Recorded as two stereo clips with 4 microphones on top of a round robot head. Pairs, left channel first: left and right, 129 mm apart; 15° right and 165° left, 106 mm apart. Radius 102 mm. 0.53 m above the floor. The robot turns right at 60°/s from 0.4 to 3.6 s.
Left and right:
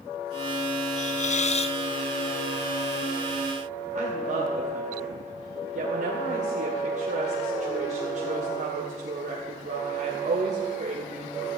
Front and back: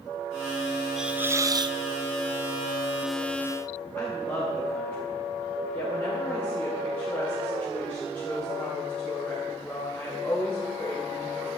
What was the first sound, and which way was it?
A hiss, 80° left.